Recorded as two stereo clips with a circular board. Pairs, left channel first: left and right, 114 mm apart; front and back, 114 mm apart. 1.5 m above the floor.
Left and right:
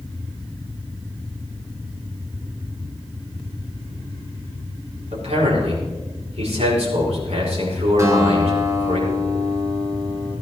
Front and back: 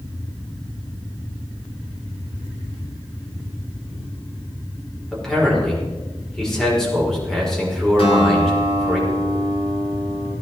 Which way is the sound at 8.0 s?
30° right.